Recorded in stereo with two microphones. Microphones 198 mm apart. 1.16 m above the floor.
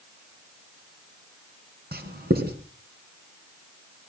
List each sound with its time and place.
1.9 s writing: 50° right (ahead or behind), 3.5 m